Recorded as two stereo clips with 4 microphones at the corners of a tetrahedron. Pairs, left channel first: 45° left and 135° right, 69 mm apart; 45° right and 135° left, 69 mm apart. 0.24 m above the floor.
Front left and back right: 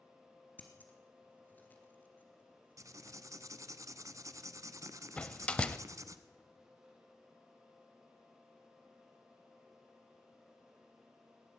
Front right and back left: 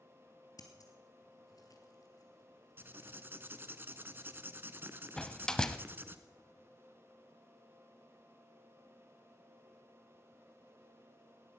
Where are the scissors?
20° right, 1.9 m.